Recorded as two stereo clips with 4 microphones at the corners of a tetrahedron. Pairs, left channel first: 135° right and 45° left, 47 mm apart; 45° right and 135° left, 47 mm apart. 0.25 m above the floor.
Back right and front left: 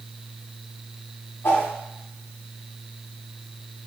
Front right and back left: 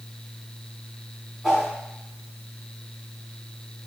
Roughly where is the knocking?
No knocking in this recording.